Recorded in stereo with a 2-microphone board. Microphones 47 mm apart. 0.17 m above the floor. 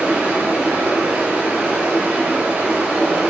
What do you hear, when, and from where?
0.0 s running water: 25° right (ahead or behind), 1.0 m